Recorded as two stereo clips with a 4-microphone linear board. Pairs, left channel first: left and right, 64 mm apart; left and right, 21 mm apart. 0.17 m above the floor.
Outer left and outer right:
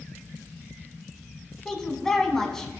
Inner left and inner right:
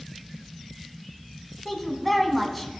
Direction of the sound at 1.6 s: 5° left (ahead or behind).